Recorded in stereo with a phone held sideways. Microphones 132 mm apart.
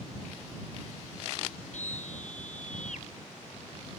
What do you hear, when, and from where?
1.7 s a scream: 70° left (ahead or behind)